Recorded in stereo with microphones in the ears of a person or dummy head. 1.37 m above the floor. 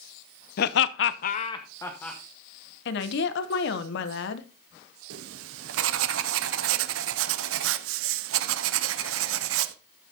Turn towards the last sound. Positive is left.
turn(degrees=-85)